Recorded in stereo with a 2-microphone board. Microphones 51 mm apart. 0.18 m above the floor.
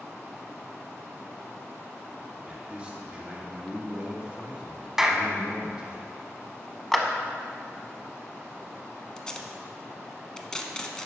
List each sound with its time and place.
2.5 s a man speaking: 20° right (ahead or behind), 1.3 m
5.0 s a clap: 5° right (ahead or behind), 0.8 m
6.9 s a clap: 5° left (ahead or behind), 0.8 m
9.2 s tape being pulled: 15° left (ahead or behind), 0.8 m